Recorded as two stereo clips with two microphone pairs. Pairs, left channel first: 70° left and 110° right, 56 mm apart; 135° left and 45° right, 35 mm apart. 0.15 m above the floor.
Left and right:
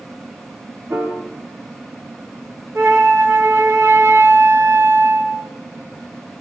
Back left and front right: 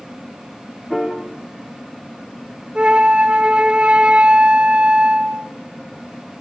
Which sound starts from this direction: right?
A flute, at 2.8 s.